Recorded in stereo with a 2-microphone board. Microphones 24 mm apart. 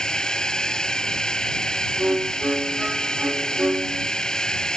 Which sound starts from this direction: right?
A violin, at 2.0 s.